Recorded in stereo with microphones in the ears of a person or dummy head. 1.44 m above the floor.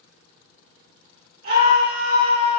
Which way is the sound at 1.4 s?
55° right (ahead or behind).